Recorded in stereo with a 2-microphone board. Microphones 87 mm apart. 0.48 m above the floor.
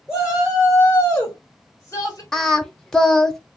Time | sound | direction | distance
0.1 | a shout | 5° right (ahead or behind) | 1.5 m
2.3 | singing | 5° left (ahead or behind) | 0.5 m